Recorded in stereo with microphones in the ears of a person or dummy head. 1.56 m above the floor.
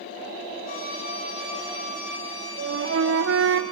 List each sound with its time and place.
0.7 s a violin: 55° left (ahead or behind), 6 m
2.6 s a flute: 75° right (ahead or behind), 1.2 m